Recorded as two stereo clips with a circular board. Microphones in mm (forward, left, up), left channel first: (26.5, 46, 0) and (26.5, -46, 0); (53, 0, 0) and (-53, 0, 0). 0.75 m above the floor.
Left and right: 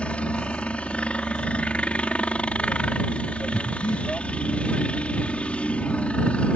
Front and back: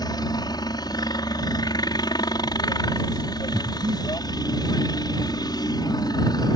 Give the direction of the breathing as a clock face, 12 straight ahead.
7 o'clock.